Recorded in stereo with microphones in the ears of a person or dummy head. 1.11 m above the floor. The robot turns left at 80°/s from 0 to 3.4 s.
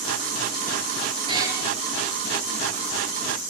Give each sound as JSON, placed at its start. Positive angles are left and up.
{"t": 1.3, "sound": "a cat meowing", "side_deg": -25, "distance_m": 7.5}